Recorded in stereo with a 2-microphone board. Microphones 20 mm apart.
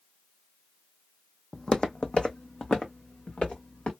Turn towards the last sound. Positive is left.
turn(degrees=80)